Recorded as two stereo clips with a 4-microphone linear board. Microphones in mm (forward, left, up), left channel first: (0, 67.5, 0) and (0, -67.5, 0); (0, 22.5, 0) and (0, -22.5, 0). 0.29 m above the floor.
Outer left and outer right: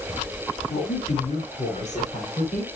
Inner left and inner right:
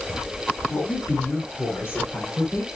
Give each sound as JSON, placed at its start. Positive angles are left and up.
{"t": 0.7, "sound": "a woman speaking", "side_deg": 55, "distance_m": 3.0}